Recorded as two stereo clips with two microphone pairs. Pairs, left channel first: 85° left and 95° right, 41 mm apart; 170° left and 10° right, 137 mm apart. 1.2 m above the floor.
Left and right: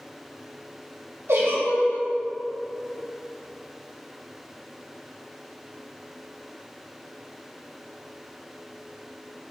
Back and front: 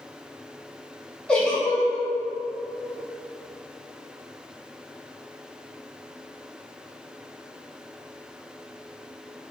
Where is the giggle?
105° right, 1.8 m.